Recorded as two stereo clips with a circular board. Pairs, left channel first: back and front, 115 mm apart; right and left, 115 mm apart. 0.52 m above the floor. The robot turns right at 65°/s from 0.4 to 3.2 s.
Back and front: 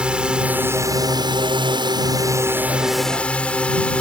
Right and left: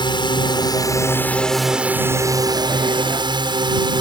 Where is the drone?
80° right; by 4.0 s 105° left.